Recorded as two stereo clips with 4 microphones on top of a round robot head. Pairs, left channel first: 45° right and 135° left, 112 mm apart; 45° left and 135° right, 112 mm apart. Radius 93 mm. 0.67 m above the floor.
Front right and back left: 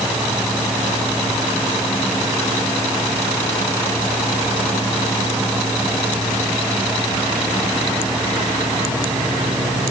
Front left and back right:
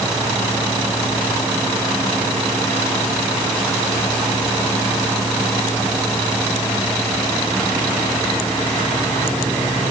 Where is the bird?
No bird in this recording.